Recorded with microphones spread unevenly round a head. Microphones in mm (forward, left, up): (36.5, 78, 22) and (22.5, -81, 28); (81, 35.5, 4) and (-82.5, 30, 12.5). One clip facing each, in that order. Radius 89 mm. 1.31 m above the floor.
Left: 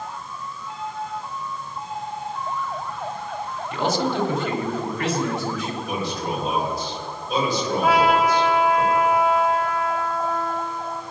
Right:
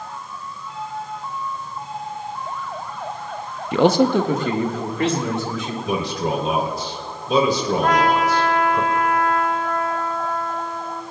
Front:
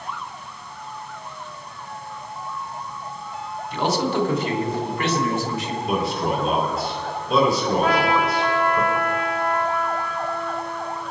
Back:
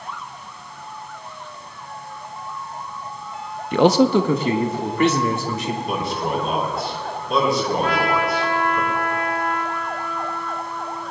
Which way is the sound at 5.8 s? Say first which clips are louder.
Right 7 dB, front 5 dB; 85° right.